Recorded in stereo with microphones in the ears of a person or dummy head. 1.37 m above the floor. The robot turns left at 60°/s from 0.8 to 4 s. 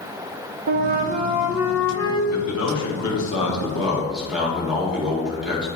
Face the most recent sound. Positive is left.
turn(degrees=0)